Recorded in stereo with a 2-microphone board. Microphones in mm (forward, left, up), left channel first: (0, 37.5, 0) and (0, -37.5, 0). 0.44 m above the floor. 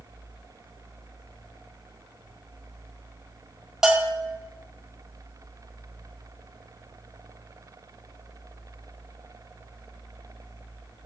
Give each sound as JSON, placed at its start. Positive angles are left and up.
{"t": 3.8, "sound": "a bell", "side_deg": -10, "distance_m": 0.7}